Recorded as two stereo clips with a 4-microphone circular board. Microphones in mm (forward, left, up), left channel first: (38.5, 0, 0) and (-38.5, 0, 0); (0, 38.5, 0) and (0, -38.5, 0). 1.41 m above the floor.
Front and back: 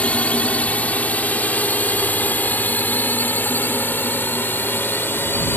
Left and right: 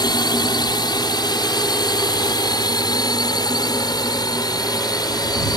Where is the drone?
75° left; by 5.6 s 60° left.